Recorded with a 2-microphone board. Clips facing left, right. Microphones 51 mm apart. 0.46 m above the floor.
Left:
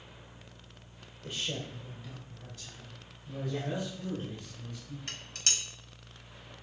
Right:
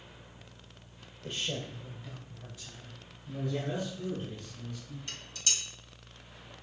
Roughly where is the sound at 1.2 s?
Centre.